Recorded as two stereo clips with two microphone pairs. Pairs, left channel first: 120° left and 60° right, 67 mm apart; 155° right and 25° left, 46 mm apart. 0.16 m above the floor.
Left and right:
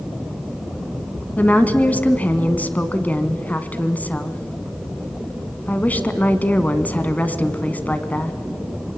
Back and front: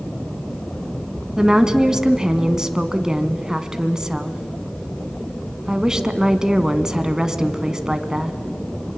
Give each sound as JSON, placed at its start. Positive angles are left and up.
{"t": 1.4, "sound": "a woman speaking", "azimuth_deg": 85, "distance_m": 1.2}